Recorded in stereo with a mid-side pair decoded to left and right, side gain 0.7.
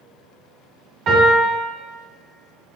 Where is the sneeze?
No sneeze in this recording.